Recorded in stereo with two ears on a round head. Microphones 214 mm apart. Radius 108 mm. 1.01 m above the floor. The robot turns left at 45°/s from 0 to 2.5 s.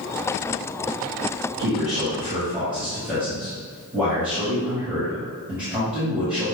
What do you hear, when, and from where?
1.6 s a man speaking: 135° right, 1.6 m; by 6.5 s 175° right, 1.6 m